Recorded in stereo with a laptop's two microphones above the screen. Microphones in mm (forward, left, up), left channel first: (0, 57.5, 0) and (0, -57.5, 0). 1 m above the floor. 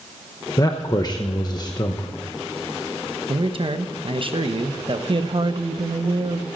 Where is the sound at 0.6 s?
35° left (ahead or behind), 0.8 m.